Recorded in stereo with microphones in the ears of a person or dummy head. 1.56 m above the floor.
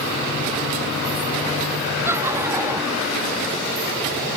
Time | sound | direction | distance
2.0 | laughter | 15° right (ahead or behind) | ?